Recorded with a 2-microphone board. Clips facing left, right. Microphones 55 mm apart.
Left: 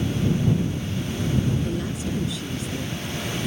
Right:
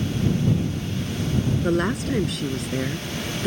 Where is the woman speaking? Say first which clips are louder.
Right 6 dB; 65° right (ahead or behind); by 3.5 s 55° right (ahead or behind).